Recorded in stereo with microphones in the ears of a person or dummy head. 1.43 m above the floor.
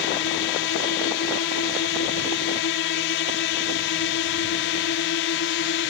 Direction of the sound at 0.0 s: 50° left (ahead or behind).